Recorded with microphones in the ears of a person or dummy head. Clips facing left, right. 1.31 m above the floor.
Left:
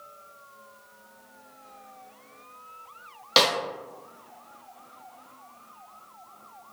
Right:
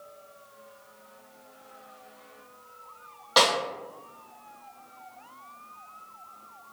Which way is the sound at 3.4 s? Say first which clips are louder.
Even; 40° left (ahead or behind).